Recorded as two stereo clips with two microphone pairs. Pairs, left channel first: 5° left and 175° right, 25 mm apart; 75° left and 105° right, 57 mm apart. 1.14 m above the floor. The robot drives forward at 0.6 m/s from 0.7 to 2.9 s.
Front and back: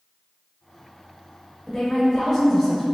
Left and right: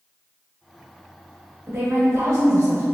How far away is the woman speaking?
About 1.4 m.